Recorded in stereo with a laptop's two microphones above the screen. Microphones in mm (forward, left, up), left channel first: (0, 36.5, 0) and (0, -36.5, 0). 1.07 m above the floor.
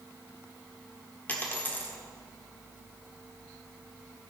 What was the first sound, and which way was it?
A dropped coin, 25° left (ahead or behind).